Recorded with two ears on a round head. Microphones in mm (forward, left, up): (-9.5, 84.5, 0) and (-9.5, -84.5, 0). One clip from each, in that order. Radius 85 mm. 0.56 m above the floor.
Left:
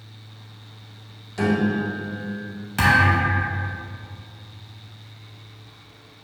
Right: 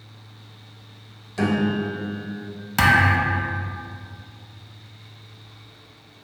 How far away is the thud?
About 0.7 m.